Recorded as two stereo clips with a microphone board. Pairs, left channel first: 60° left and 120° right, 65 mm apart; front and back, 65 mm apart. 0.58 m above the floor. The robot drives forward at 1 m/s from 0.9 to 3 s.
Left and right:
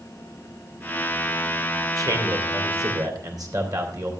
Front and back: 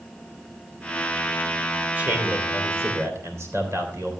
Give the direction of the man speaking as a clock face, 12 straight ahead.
4 o'clock.